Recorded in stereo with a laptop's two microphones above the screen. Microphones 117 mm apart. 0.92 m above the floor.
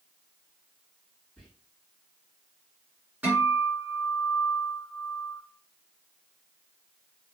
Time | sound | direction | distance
1.4 | whispering | 5° left (ahead or behind) | 1.9 m
3.2 | a guitar | 10° right (ahead or behind) | 1.7 m